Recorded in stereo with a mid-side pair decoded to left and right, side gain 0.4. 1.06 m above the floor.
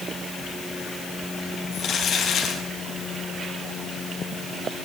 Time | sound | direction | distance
1.7 | crumpling | 70° left | 8.5 m